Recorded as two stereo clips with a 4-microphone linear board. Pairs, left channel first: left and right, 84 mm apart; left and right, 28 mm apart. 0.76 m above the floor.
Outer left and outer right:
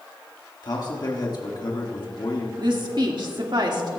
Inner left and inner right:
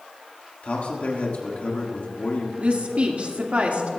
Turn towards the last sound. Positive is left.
turn(degrees=-55)  # may be behind; listen again after turning